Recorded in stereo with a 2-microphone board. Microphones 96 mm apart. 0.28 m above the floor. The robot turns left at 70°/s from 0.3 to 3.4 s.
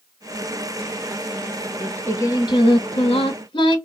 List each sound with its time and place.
1.8 s singing: 175° left, 0.8 m; by 3.8 s 60° left, 0.8 m